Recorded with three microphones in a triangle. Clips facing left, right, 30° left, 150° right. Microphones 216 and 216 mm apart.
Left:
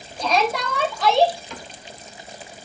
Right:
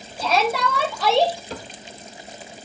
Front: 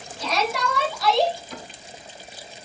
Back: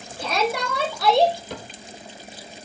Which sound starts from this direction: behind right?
A cupboard door, at 1.5 s.